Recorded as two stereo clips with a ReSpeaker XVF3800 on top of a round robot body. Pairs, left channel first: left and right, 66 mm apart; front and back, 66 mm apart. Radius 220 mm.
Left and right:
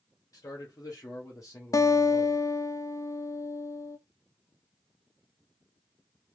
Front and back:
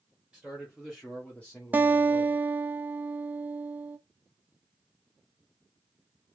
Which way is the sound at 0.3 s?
105° left.